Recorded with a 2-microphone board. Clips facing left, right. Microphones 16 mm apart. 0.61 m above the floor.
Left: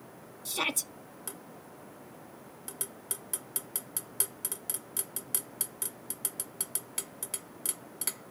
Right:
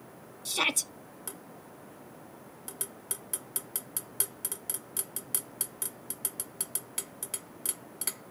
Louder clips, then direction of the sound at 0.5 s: Right 3 dB; 20° right (ahead or behind).